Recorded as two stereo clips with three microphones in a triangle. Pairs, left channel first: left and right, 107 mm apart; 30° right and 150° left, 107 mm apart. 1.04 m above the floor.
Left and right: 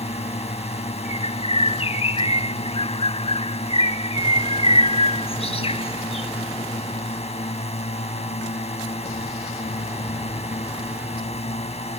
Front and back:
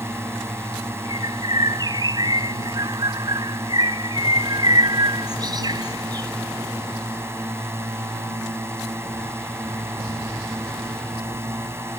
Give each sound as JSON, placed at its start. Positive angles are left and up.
{"t": 0.0, "sound": "a drone", "azimuth_deg": 85}
{"t": 1.1, "sound": "a bird", "azimuth_deg": 105}